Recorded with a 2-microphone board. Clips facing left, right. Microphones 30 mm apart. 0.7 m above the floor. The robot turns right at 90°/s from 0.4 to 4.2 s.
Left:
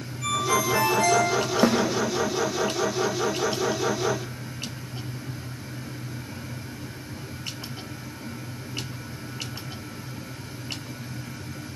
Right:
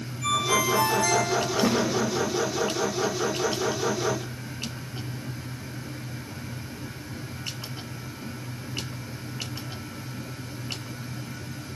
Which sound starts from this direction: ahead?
A ringtone, at 0.2 s.